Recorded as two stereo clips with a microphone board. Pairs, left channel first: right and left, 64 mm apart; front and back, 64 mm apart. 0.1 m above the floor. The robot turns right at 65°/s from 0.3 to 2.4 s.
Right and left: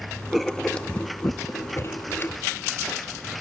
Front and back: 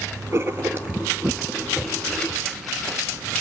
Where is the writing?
175° left, 0.6 m; by 2.4 s 50° right, 0.6 m.